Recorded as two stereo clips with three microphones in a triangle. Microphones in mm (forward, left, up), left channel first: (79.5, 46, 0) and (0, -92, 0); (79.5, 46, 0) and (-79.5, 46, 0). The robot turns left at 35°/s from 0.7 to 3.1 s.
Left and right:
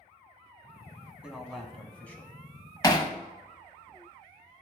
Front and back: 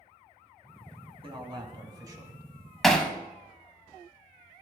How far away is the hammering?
About 0.7 m.